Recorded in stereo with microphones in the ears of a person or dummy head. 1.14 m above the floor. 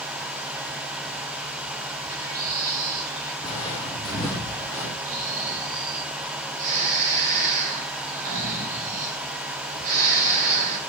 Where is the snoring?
45° right (ahead or behind), 4 m.